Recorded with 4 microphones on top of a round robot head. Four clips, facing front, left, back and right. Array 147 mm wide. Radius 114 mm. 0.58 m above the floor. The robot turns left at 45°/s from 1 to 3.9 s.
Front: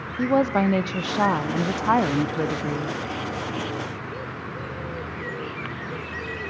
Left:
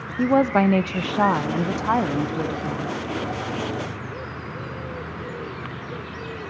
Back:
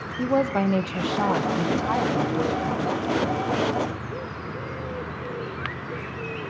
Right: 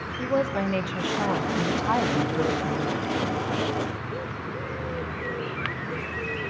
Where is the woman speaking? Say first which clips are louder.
Left 7 dB, front 2 dB; 75° left, 0.7 m; by 3.0 s 15° right, 0.7 m.